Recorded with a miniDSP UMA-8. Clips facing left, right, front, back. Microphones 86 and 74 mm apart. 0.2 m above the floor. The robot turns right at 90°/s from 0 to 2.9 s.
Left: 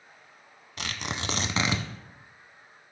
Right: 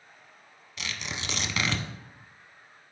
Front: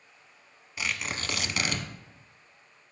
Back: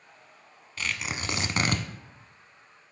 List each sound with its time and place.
0.8 s tearing paper: 70° left, 0.5 m; by 1.9 s 170° left, 0.5 m